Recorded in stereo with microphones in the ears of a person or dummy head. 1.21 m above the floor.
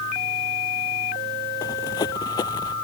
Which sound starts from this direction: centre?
Running footsteps, at 1.6 s.